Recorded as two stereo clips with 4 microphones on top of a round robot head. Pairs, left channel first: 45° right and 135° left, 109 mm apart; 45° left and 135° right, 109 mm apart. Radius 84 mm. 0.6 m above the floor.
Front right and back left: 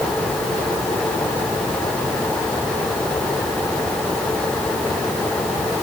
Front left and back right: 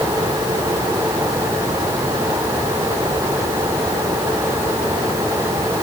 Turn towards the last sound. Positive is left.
No sound to turn to.